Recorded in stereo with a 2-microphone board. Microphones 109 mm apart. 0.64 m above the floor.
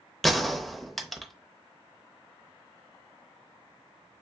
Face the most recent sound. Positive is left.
turn(degrees=0)  # may be behind; listen again after turning